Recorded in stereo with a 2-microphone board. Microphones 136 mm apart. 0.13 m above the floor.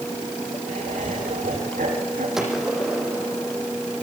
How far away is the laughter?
About 8.5 m.